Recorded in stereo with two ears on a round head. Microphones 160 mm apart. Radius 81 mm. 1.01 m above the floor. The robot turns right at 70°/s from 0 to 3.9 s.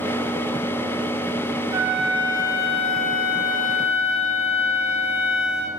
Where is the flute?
20° right, 1.1 m; by 5.7 s 130° left, 1.1 m.